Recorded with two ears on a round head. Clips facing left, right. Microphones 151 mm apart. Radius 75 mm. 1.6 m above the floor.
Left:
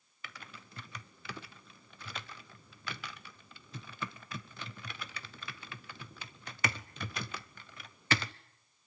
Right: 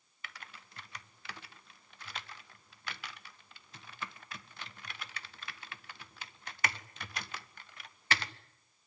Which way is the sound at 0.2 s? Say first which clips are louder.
Left 2 dB; 75° left (ahead or behind).